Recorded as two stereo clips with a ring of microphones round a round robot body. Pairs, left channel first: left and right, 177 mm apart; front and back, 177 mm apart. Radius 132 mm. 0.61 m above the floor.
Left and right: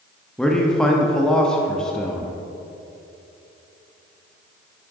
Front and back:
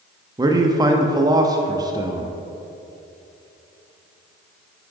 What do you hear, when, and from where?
0.4 s a man speaking: 170° left, 0.7 m